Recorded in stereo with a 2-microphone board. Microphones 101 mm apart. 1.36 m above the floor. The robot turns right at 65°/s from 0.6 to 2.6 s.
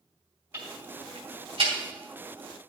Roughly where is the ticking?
Right.